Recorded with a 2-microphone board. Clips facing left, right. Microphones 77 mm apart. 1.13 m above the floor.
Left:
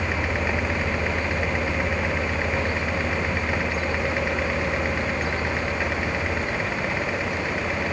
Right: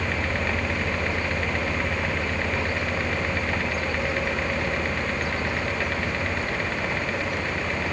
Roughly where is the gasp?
I don't hear a gasp.